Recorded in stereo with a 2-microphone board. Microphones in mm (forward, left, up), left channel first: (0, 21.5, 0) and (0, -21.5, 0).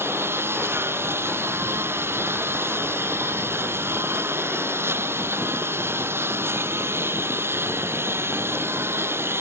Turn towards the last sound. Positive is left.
turn(degrees=-70)  # may be behind; listen again after turning